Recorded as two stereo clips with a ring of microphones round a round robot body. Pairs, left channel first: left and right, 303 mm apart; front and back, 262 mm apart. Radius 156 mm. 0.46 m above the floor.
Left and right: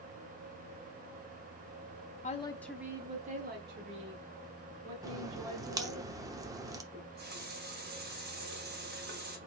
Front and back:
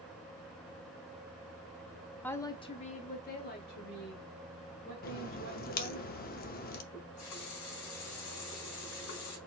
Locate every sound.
2.2 s a woman speaking: 75° left, 0.7 m; by 6.0 s 50° right, 2.5 m
5.0 s a crack: 20° right, 0.6 m
6.9 s a running tap: 30° right, 3.5 m